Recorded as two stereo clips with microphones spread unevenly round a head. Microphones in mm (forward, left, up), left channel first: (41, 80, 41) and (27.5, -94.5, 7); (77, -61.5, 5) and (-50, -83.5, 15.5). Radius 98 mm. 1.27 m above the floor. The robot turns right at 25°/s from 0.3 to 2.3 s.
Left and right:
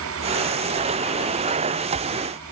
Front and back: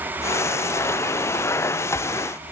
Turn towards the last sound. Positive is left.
No sound to turn to.